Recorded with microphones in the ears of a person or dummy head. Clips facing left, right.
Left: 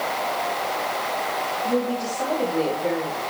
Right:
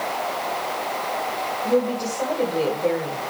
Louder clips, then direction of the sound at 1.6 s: Right 3 dB; 50° right (ahead or behind).